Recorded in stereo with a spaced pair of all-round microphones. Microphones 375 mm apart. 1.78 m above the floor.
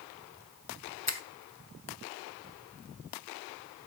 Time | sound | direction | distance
1.1 | a finger snap | 45° left (ahead or behind) | 0.7 m